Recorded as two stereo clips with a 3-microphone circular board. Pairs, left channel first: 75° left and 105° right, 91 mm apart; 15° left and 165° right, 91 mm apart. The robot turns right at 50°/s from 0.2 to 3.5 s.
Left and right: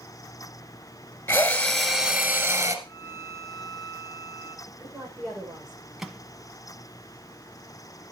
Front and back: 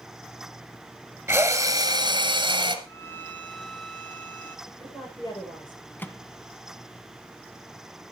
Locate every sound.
1.3 s a drill: 140° left, 1.7 m; by 2.8 s 145° right, 1.7 m
2.9 s a violin: 55° left, 2 m; by 4.6 s 90° left, 2 m
4.7 s a woman speaking: 15° right, 10 m
6.0 s a microwave: 20° right, 0.9 m